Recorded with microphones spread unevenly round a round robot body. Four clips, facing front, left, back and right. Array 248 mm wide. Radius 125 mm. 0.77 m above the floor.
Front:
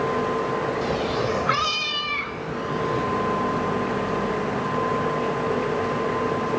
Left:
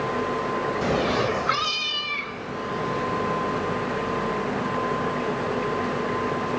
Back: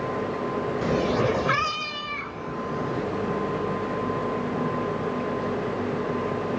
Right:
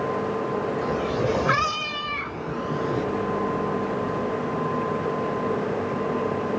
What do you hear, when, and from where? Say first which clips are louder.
0.8 s a cat meowing: left 1 dB, back 1 dB; 135° left, 0.8 m; by 3.0 s 65° right, 2.5 m